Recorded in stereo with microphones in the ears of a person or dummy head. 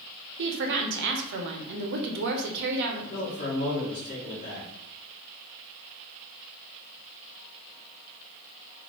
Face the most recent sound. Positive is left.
turn(degrees=55)  # may be behind; listen again after turning